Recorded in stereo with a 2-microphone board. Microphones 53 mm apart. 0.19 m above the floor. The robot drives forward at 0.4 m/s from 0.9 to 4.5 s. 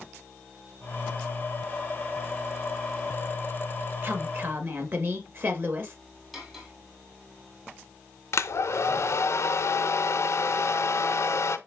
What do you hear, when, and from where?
4.0 s a woman speaking: 40° right (ahead or behind), 3 m; by 6.0 s 45° right (ahead or behind), 2.5 m
6.3 s cutlery clinking: centre (ahead or behind), 3.5 m
8.3 s a hair dryer: 60° left (ahead or behind), 0.7 m